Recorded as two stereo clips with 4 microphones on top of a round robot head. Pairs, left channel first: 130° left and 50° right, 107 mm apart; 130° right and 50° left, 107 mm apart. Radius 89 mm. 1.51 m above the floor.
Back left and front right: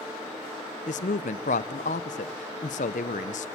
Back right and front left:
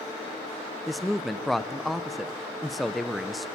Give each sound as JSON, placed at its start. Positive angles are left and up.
{"t": 0.9, "sound": "a woman speaking", "azimuth_deg": 140, "distance_m": 0.6}